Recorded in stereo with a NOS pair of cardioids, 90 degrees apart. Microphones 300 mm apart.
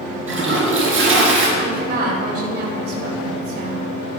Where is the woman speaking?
35° right, 5 m.